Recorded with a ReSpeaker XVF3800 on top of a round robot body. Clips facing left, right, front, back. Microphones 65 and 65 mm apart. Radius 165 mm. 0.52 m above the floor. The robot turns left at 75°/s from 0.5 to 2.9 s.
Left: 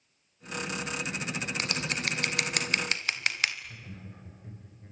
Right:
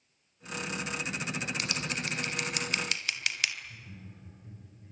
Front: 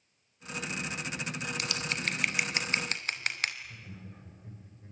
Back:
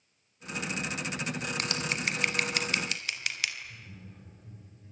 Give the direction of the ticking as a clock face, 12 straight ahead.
No ticking in this recording.